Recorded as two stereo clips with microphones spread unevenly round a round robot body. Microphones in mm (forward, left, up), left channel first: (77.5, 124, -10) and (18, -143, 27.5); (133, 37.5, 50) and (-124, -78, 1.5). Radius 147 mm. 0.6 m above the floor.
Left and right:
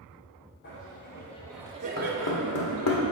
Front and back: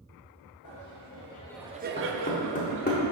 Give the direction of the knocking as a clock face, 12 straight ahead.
9 o'clock.